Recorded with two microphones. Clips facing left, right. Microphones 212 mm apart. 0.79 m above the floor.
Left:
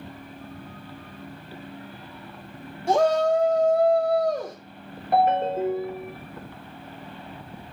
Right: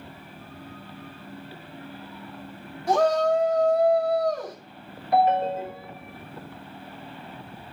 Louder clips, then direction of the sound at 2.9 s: Left 1 dB; 25° left (ahead or behind).